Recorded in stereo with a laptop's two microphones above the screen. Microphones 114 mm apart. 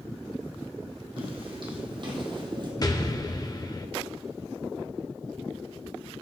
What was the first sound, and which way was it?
Footsteps, 50° right (ahead or behind).